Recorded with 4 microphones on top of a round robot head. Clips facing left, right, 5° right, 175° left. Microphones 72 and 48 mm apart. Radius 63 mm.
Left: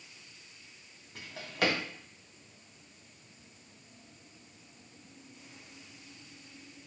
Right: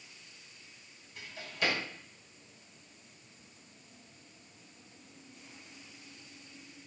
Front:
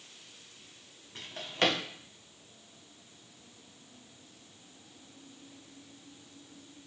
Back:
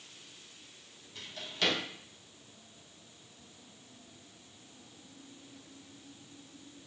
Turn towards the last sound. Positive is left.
turn(degrees=40)